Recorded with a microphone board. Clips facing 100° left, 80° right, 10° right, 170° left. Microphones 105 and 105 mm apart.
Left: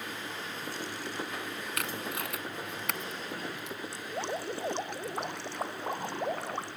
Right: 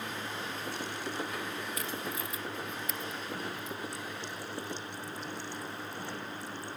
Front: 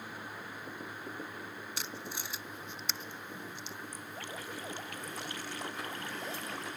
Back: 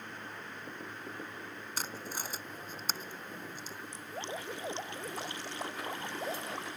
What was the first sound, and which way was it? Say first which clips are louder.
Tape being pulled: left 1 dB, back 4 dB; 120° left.